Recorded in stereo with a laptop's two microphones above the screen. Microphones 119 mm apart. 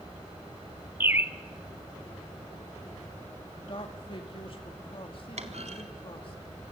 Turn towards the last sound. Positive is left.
turn(degrees=-70)  # may be behind; listen again after turning